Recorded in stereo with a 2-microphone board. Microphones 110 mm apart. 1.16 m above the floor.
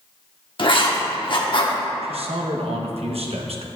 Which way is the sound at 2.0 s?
70° right (ahead or behind).